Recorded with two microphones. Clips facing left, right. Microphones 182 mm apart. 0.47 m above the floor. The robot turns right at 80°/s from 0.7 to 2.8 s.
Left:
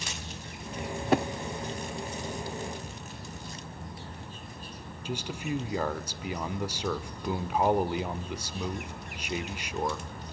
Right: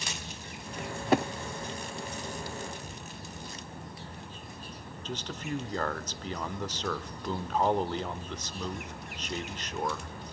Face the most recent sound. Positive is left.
turn(degrees=10)  # may be behind; listen again after turning